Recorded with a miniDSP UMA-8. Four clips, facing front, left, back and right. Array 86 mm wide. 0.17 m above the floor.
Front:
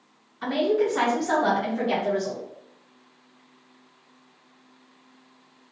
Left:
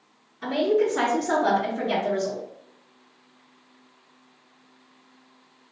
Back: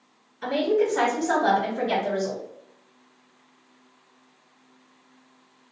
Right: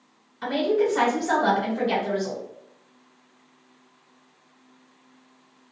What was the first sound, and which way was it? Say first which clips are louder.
A woman speaking: even, even; 35° right.